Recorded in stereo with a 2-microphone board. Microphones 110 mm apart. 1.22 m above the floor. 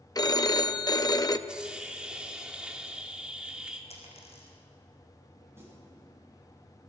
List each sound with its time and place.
0.1 s a phone ringing: 35° left (ahead or behind), 0.7 m
1.5 s a hiss: 10° right (ahead or behind), 2 m
3.9 s a dropped coin: 75° left (ahead or behind), 5 m
5.5 s a snare drum: 25° right (ahead or behind), 8.5 m